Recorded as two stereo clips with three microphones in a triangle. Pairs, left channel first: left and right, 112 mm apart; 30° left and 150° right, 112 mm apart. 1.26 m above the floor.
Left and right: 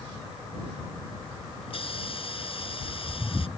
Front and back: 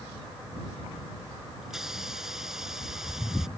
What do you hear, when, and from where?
1.6 s a hiss: 125° left